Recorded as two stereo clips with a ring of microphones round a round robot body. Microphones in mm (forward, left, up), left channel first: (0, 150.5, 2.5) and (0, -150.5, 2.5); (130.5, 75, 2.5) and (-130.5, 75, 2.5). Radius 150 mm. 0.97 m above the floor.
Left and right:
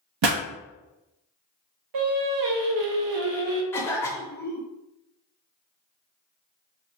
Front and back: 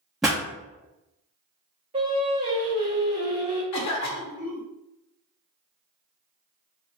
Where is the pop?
90° right, 0.6 m.